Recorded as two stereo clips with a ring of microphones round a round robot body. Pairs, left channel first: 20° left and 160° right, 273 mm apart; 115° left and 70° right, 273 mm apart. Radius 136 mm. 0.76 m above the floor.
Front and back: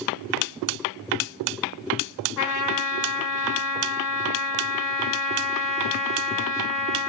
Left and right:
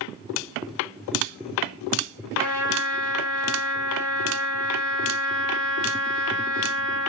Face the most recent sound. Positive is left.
turn(degrees=5)